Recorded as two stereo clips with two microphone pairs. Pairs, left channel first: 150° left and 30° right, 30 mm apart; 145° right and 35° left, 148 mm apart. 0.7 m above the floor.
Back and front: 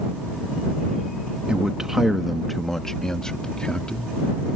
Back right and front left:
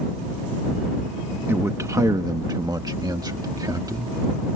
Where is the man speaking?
20° right; by 4.2 s 100° left.